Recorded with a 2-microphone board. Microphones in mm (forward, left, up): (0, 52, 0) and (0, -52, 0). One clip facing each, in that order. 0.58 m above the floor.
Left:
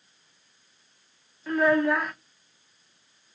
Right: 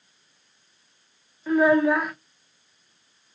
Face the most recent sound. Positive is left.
turn(degrees=-5)  # may be behind; listen again after turning